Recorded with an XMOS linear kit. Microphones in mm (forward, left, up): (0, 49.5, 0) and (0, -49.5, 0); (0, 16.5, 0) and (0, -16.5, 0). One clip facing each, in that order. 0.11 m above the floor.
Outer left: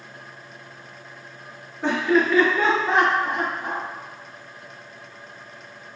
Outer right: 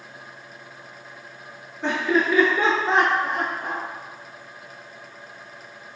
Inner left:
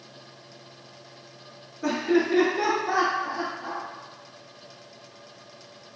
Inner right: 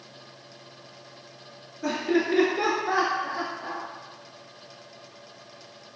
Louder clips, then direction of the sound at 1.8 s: Outer left 2 dB, inner left 2 dB; 5° left (ahead or behind).